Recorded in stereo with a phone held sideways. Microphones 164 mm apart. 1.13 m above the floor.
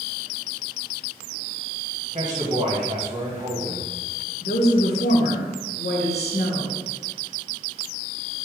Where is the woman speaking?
85° left, 0.9 m.